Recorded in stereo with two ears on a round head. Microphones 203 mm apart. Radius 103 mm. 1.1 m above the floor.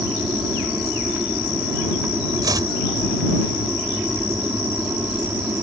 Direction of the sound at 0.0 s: 5° right (ahead or behind).